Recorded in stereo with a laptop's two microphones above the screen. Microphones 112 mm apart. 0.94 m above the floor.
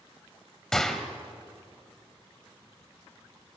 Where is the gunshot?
5° left (ahead or behind), 1.5 m.